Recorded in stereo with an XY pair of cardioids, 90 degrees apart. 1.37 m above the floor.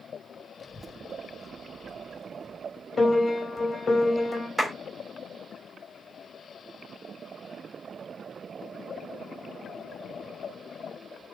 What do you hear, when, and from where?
0.6 s a child speaking: 25° left, 0.8 m; by 2.9 s 15° left, 2.5 m
3.0 s a piano: 30° left, 2.5 m
4.6 s a clap: 5° right, 3 m